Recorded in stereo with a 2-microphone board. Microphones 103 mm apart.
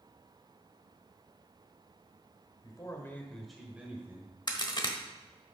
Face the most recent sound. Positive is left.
turn(degrees=50)  # may be behind; listen again after turning